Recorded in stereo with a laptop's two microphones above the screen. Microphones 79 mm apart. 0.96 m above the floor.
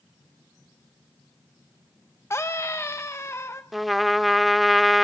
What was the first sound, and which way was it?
A scream, 35° left (ahead or behind).